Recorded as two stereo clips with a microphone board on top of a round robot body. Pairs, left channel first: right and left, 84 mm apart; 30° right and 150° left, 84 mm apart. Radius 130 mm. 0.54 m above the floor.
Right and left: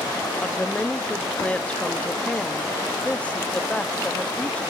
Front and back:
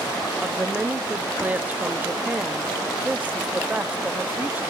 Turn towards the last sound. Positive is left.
turn(degrees=-155)